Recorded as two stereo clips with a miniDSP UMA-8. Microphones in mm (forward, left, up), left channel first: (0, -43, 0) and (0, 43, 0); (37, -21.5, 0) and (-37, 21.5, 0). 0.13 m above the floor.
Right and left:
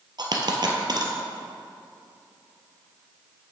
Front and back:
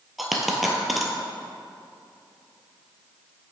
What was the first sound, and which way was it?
A dropped coin, 60° left.